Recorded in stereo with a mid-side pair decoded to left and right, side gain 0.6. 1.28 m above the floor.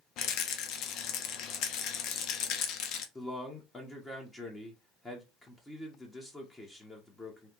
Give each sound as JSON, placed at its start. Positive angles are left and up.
{"t": 0.2, "sound": "a rattle", "azimuth_deg": 60, "distance_m": 0.6}
{"t": 3.1, "sound": "a man speaking", "azimuth_deg": 15, "distance_m": 1.0}